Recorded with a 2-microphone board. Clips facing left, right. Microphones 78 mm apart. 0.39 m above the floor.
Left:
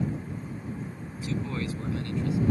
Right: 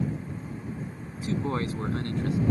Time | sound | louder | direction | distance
1.2 | a man speaking | right 3 dB | 35° right (ahead or behind) | ?